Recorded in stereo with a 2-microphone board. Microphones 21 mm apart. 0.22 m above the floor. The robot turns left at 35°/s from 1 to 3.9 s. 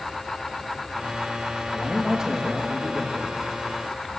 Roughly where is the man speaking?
Ahead.